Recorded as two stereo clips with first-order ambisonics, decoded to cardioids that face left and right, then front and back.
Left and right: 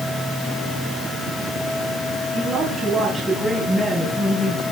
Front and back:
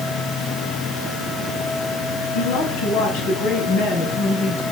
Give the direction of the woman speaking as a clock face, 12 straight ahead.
1 o'clock.